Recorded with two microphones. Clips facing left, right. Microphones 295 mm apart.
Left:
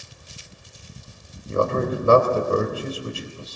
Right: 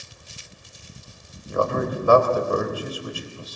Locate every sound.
1.5 s a man speaking: 30° left (ahead or behind), 4 m